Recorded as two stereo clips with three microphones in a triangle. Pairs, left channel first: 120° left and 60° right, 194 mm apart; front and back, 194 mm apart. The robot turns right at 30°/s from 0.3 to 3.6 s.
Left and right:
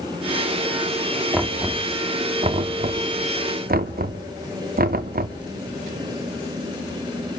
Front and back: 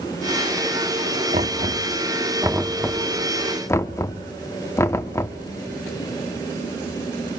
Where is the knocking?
140° right, 0.9 m; by 5.4 s 75° right, 0.9 m.